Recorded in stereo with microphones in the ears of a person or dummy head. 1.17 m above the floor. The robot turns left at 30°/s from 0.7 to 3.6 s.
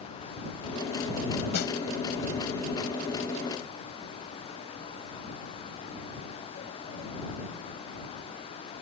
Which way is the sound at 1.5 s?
55° left (ahead or behind).